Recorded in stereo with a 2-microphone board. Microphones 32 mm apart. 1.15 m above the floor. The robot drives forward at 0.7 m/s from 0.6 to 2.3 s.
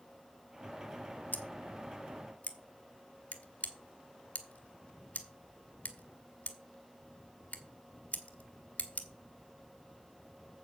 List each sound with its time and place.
1.3 s scissors: 70° left (ahead or behind), 1.1 m; by 9.1 s 45° left (ahead or behind), 1.3 m